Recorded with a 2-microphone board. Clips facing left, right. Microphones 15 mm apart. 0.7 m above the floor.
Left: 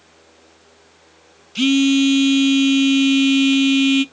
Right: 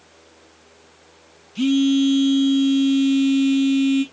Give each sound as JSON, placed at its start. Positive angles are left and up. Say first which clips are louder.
{"t": 1.6, "sound": "a phone buzzing", "louder": "left 3 dB", "side_deg": 55, "distance_m": 0.5}